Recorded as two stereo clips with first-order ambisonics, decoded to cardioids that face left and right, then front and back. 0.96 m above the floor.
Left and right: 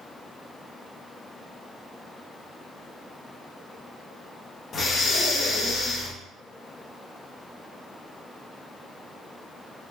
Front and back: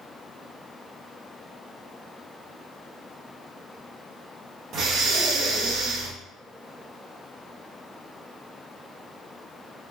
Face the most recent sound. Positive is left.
turn(degrees=140)